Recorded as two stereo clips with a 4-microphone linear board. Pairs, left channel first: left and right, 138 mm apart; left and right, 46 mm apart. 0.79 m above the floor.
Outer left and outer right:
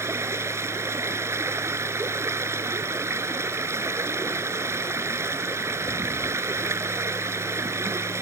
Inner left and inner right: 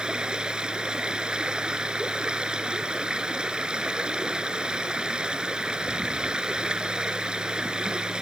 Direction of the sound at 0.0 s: 20° right (ahead or behind).